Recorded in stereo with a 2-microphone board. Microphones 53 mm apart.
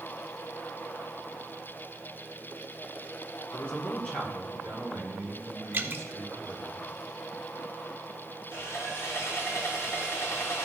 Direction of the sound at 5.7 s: 40° right (ahead or behind).